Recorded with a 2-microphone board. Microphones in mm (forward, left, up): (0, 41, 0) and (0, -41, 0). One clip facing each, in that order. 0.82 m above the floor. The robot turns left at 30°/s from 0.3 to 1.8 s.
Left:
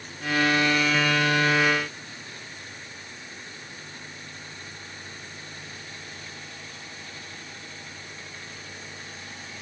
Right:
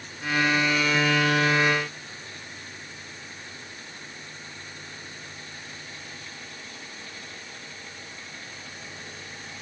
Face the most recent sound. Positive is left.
No sound to turn to.